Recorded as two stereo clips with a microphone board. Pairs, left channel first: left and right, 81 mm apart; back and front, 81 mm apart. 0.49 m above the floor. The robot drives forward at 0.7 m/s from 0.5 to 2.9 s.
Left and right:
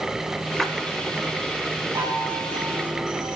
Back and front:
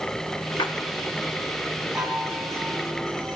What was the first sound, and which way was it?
A splash, straight behind.